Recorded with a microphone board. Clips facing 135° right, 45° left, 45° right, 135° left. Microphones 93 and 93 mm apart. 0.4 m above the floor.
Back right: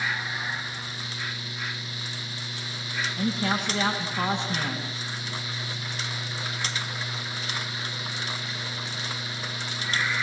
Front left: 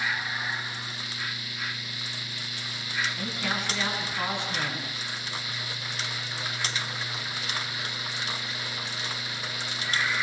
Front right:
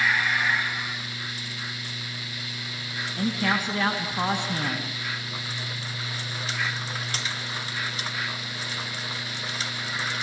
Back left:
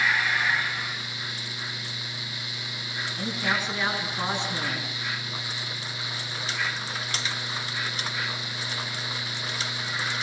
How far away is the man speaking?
About 3.5 m.